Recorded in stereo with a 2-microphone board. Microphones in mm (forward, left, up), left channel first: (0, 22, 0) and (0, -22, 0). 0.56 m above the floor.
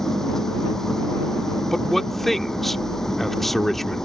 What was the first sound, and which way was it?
An engine running, 10° left (ahead or behind).